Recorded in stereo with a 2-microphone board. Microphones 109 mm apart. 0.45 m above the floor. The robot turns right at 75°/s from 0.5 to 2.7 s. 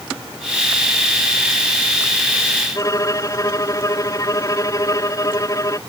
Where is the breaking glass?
No breaking glass in this recording.